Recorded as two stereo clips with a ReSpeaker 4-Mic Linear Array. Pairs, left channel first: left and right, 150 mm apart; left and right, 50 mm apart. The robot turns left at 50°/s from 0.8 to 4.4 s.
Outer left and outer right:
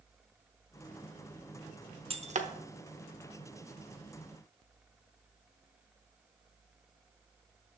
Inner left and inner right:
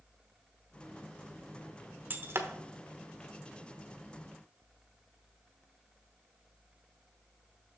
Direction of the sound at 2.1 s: 40° right (ahead or behind).